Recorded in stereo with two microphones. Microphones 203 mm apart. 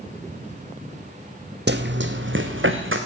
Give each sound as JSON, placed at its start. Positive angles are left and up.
{"t": 1.7, "sound": "running footsteps", "side_deg": -60, "distance_m": 0.9}